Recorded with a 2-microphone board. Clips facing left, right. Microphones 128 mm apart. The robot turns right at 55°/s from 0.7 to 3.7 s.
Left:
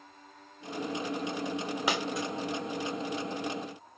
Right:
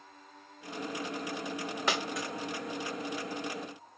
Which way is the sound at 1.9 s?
10° left (ahead or behind).